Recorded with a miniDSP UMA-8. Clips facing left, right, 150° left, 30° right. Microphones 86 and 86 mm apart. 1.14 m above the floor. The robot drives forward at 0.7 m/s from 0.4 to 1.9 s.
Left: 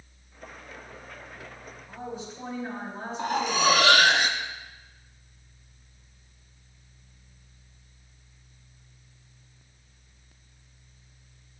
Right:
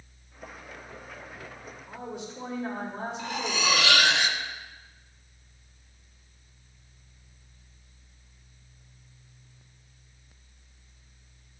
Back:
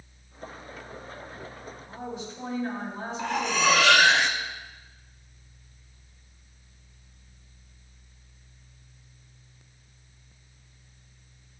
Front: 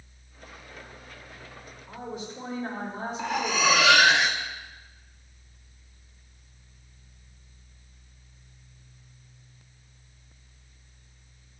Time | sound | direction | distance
1.9 | a woman speaking | 65° right | 4.5 m
3.2 | cutlery clinking | 55° left | 0.8 m